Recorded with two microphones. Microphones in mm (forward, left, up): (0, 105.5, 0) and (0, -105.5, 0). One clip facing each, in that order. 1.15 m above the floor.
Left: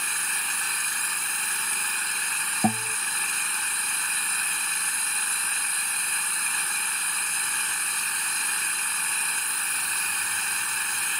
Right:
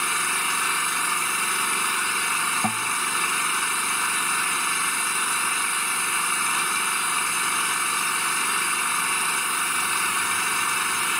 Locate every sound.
0.0 s an engine running: 80° right
2.6 s a guitar: 30° left (ahead or behind)